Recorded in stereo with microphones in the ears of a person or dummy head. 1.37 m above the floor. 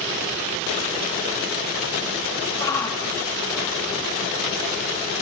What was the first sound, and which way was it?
A shout, 20° left (ahead or behind).